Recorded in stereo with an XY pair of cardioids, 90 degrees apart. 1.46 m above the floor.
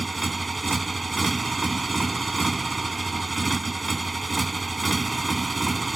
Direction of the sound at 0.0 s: 25° right.